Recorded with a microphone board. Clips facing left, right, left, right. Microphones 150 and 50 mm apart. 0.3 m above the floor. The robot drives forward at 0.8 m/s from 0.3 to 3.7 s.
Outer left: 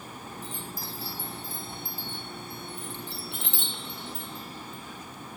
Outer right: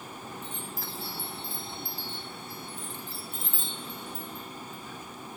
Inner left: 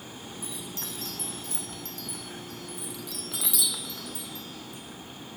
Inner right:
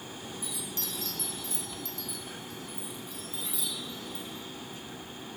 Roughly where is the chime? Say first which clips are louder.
Outer left 1 dB, even; left.